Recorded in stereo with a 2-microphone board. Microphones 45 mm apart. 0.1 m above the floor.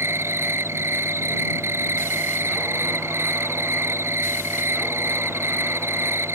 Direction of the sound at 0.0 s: 65° right (ahead or behind).